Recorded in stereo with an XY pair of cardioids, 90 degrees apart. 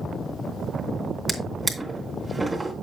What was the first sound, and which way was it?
A drawer, 25° right.